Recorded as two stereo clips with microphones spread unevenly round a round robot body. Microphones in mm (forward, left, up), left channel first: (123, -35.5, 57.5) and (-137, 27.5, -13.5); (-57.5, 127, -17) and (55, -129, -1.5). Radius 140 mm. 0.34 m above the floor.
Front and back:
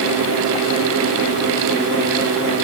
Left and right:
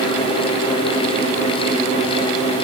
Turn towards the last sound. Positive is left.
No sound to turn to.